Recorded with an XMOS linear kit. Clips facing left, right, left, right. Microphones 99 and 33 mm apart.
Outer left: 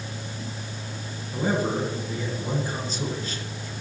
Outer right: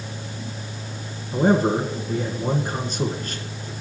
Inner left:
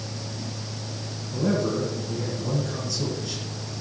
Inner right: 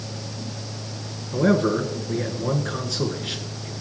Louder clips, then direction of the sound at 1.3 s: Outer right 7 dB, inner right 5 dB; 55° right (ahead or behind).